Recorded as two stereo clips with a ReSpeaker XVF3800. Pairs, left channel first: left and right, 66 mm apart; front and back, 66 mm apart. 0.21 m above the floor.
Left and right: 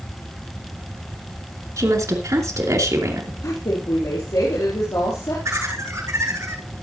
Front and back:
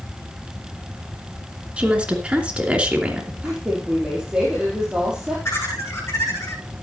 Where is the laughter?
50° right, 8 m.